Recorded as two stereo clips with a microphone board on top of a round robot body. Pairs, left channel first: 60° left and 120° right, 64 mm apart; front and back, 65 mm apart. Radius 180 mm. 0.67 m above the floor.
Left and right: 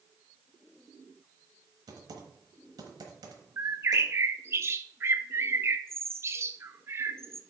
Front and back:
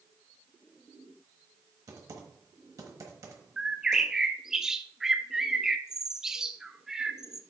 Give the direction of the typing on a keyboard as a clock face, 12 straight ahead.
5 o'clock.